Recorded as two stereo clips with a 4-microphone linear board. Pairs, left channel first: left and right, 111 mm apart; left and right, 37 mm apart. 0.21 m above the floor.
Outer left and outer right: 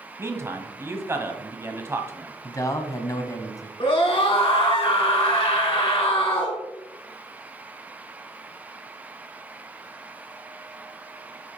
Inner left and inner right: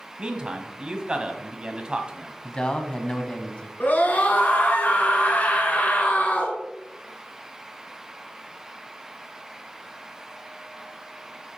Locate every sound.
0.2 s a man speaking: 20° right (ahead or behind), 1.1 m
2.4 s a man speaking: 30° left (ahead or behind), 1.1 m
3.8 s a scream: 50° left (ahead or behind), 2.5 m